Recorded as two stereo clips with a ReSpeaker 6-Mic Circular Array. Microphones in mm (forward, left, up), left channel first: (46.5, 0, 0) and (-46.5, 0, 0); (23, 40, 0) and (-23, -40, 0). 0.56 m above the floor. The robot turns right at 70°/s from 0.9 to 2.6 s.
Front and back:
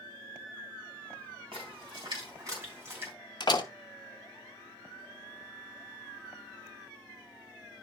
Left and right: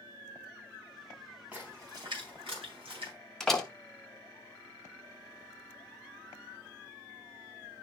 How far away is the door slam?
About 0.9 m.